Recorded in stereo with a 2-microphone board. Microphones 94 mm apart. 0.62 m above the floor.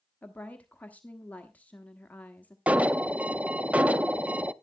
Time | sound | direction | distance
0.2 | a woman speaking | 15° left (ahead or behind) | 1.0 m
2.7 | an alarm | 15° right (ahead or behind) | 0.5 m